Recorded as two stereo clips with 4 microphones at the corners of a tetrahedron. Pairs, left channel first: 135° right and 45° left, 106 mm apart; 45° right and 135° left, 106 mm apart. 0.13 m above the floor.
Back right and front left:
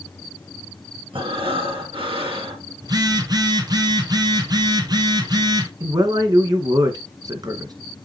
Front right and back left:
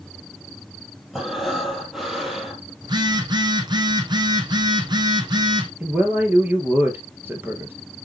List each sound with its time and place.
1.1 s breathing: 50° left, 2.5 m
2.8 s a phone buzzing: 95° left, 1.1 m
5.8 s a man speaking: 75° left, 1.9 m